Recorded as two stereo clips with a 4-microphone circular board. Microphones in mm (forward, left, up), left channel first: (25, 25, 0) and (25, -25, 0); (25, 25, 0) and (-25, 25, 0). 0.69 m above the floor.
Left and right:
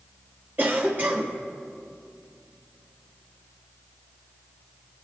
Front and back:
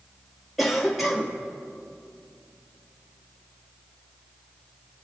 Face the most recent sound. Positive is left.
turn(degrees=-90)